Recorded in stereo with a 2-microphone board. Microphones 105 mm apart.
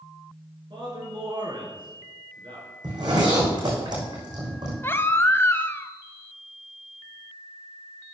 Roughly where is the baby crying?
Left.